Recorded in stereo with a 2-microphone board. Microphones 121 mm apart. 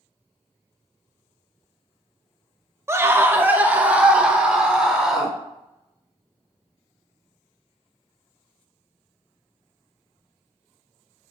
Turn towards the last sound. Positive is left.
turn(degrees=-5)  # may be behind; listen again after turning